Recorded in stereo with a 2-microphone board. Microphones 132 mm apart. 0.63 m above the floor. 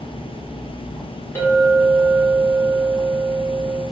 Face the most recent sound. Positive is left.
turn(degrees=20)  # may be behind; listen again after turning